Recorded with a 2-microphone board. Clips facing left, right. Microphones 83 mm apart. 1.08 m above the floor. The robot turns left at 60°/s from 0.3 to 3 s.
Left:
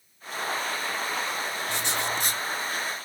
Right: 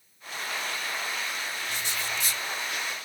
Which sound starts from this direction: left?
Writing, at 1.7 s.